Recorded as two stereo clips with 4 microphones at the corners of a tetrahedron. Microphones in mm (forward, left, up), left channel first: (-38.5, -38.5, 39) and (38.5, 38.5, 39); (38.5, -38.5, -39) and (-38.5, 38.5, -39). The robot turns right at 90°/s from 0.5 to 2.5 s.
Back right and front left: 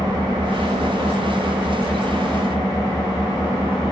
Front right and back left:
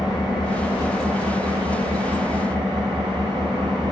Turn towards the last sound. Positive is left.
turn(degrees=180)